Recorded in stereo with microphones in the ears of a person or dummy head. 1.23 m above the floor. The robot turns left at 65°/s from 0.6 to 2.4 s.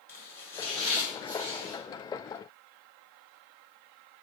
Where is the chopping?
15° left, 1.1 m; by 1.8 s 60° right, 1.1 m.